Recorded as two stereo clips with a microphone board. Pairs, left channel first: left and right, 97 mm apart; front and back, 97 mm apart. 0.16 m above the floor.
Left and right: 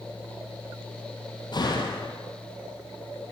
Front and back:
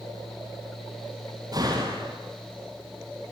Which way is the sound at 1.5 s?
130° left.